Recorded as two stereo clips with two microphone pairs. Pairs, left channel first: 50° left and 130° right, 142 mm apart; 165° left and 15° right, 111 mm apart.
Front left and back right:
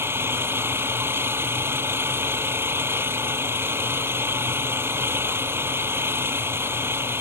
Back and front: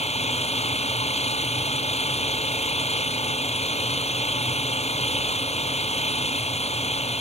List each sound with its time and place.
0.0 s an engine running: 160° left